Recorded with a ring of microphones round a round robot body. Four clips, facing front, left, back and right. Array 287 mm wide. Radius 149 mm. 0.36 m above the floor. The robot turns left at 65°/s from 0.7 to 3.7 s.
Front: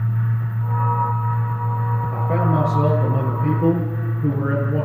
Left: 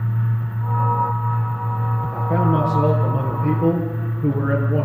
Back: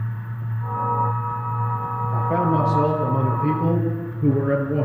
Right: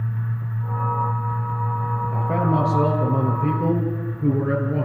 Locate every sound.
2.1 s a man speaking: 35° right, 8.5 m; by 4.9 s 140° right, 8.5 m